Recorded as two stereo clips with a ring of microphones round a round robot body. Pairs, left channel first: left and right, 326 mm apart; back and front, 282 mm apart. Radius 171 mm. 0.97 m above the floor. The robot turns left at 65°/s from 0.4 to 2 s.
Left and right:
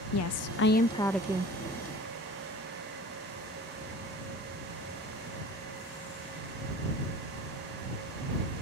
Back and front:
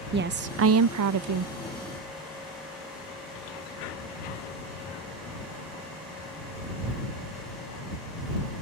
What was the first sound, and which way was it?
A woman speaking, 50° left.